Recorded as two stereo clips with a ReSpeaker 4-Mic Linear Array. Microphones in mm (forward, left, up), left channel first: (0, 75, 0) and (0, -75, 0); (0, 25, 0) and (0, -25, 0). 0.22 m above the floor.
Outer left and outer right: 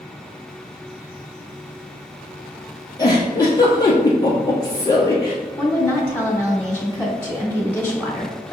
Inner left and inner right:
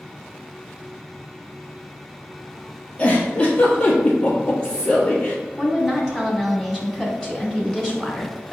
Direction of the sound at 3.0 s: 25° left (ahead or behind).